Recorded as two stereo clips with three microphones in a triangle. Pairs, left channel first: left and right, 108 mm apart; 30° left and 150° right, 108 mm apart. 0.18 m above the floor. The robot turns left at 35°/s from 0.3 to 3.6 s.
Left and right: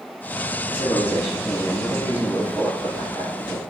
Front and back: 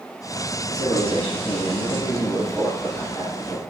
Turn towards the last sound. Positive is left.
turn(degrees=-65)